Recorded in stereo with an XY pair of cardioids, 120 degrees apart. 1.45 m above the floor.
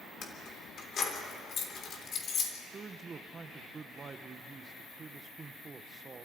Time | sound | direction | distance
0.2 | keys jangling | 50° left | 3 m
2.7 | a man speaking | 35° right | 0.9 m